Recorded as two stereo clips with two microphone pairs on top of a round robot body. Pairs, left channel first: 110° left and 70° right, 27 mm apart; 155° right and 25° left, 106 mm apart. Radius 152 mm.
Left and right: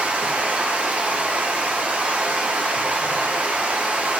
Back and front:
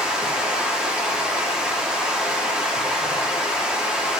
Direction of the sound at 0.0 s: 55° right.